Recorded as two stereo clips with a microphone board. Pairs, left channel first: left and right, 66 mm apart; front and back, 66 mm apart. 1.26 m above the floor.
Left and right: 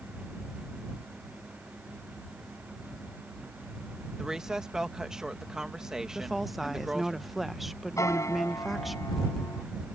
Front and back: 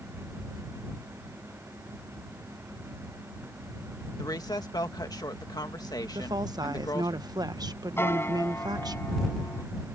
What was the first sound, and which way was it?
A woman speaking, 10° right.